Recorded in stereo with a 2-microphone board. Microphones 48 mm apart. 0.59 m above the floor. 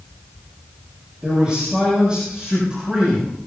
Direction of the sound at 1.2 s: 25° right (ahead or behind).